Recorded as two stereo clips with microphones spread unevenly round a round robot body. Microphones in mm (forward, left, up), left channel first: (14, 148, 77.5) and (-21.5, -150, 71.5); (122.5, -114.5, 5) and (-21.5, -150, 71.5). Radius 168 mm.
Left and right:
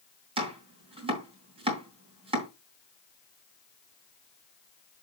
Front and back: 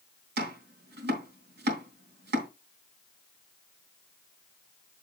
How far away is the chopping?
About 3 m.